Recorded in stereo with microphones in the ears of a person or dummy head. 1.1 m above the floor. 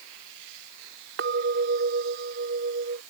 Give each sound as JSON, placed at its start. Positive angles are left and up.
{"t": 1.2, "sound": "a clink", "side_deg": -55}